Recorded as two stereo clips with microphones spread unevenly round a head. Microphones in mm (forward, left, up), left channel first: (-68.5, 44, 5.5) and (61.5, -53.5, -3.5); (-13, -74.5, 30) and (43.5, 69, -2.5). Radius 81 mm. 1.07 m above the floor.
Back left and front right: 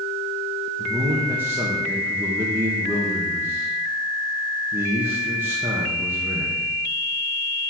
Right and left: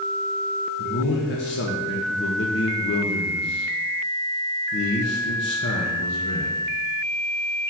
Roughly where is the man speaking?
Right.